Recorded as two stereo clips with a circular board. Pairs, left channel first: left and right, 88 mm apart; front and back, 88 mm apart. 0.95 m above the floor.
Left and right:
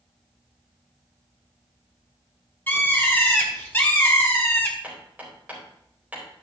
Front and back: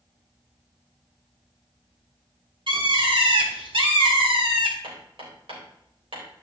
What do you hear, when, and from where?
2.7 s a bird: 155° left, 1.5 m
4.8 s hammering: 165° right, 3.5 m